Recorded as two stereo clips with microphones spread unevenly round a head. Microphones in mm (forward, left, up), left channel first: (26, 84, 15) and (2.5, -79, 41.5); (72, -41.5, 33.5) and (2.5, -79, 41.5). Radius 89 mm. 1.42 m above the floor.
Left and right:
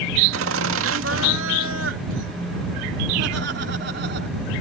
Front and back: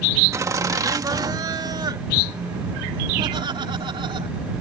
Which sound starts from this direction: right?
Laughter, at 0.3 s.